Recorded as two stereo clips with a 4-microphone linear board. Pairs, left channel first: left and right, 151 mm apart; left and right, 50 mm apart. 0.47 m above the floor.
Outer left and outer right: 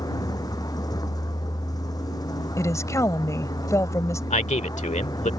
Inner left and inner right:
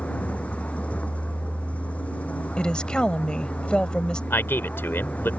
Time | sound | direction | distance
0.0 | a vehicle | 25° left (ahead or behind) | ?
2.6 | a woman speaking | 20° left (ahead or behind) | ?
4.3 | a man speaking | 50° left (ahead or behind) | ?